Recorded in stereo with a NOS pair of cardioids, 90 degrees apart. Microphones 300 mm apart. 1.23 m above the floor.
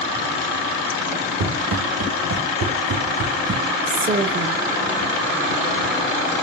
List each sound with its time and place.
1.4 s running footsteps: 60° right, 4 m; by 3.6 s 50° right, 5 m
3.9 s a woman speaking: 35° right, 1.3 m